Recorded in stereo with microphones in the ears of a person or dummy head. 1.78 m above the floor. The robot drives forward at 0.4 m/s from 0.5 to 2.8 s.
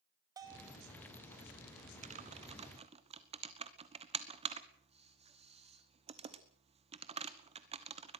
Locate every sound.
0.4 s a bell: 15° right (ahead or behind), 1.9 m
2.0 s typing on a keyboard: 40° right (ahead or behind), 1.1 m; by 8.2 s 30° right (ahead or behind), 1.4 m